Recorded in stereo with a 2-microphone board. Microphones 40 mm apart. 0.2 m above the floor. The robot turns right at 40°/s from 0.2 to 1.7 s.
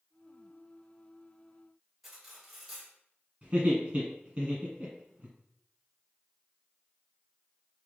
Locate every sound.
2.0 s cutlery clinking: centre (ahead or behind), 1.7 m
3.4 s laughter: 30° right (ahead or behind), 1.4 m